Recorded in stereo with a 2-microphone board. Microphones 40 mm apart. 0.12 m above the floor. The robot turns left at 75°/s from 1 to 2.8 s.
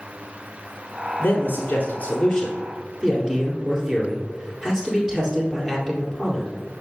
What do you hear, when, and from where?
1.2 s a man speaking: 100° left, 2 m; by 6.5 s 20° right, 2 m